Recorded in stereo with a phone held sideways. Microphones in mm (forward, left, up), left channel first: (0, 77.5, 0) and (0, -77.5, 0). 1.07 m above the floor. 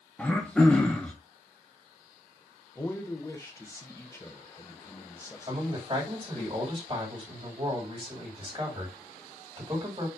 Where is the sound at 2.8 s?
20° left (ahead or behind), 0.7 m.